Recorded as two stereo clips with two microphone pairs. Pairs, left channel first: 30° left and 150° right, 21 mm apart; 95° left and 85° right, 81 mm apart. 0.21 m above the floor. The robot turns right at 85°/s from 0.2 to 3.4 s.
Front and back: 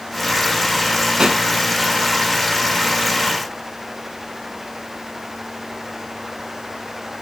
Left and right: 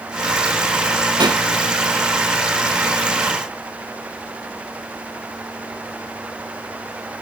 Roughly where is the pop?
Right.